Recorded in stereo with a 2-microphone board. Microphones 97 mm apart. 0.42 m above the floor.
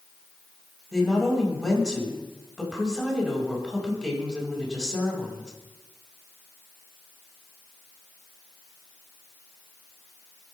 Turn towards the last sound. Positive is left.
turn(degrees=5)  # may be behind; listen again after turning